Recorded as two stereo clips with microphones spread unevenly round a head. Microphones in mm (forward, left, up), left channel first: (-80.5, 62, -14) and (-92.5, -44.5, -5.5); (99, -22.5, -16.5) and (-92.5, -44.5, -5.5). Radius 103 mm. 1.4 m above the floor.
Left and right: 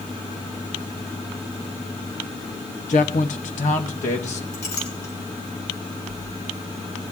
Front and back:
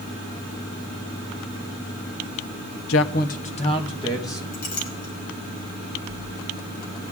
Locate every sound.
2.9 s a man speaking: 35° left, 0.7 m; by 4.4 s 80° left, 2.0 m
4.5 s a clink: 60° left, 3.5 m